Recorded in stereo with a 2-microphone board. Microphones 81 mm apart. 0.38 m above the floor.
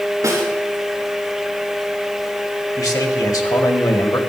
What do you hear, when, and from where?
0.2 s a snare drum: 45° right (ahead or behind), 4.5 m
2.8 s a man speaking: 50° left (ahead or behind), 2.0 m